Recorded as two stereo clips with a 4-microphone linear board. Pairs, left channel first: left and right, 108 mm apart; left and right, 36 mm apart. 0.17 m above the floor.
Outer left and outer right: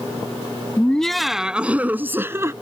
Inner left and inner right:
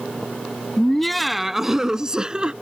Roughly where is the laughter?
Centre.